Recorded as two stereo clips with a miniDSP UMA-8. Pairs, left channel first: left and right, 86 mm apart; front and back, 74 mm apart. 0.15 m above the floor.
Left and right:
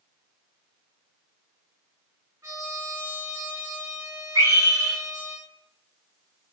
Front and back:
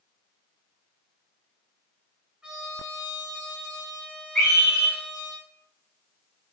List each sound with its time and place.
2.4 s a trumpet: 100° right, 1.9 m
4.3 s a scream: 60° right, 1.9 m